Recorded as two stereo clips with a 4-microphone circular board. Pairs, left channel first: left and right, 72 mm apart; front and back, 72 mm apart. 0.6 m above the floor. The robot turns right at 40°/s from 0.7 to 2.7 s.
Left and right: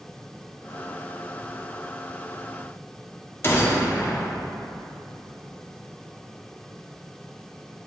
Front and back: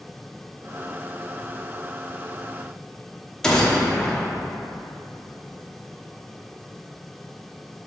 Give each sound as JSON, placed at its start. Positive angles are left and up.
{"t": 3.4, "sound": "a gunshot", "azimuth_deg": 75, "distance_m": 1.1}